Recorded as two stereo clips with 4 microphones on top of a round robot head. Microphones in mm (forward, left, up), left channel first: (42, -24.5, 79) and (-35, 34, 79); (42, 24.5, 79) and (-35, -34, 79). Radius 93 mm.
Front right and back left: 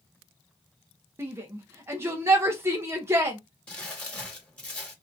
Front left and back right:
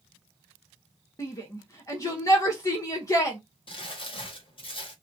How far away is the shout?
About 0.9 m.